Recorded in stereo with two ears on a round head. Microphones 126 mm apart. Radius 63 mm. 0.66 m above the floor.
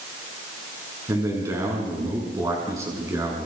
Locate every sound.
1.1 s a man speaking: 25° right (ahead or behind), 7.5 m